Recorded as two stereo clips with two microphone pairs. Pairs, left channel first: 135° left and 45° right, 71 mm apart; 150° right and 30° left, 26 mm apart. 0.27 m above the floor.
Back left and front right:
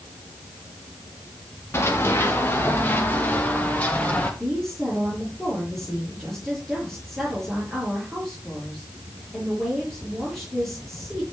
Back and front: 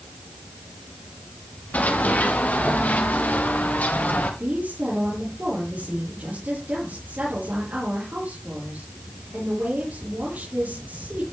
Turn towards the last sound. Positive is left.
turn(degrees=50)